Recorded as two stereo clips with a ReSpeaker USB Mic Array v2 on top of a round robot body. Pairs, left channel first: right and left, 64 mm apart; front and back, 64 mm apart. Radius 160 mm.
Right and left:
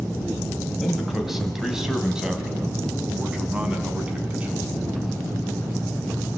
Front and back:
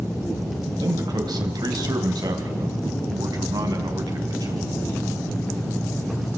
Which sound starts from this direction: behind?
A man speaking, at 0.8 s.